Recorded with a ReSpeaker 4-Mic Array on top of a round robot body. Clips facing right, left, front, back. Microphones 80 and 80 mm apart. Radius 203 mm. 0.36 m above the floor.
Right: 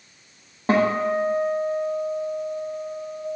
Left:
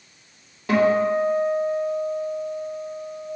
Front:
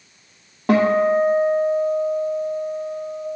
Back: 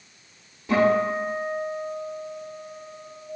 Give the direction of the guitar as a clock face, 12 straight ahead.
1 o'clock.